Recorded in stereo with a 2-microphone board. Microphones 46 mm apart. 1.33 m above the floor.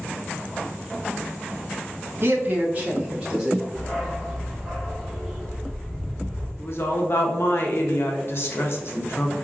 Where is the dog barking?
5° right (ahead or behind), 1.5 m.